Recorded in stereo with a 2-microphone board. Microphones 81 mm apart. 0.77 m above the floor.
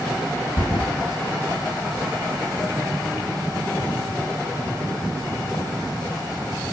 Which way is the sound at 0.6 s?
60° left (ahead or behind).